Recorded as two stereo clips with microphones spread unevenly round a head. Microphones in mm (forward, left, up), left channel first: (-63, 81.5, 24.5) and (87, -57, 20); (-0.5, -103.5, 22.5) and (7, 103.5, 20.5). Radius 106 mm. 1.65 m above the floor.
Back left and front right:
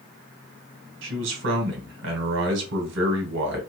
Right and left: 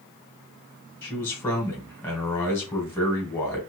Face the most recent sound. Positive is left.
turn(degrees=-15)